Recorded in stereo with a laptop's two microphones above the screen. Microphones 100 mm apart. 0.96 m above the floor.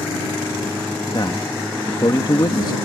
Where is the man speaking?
45° left (ahead or behind).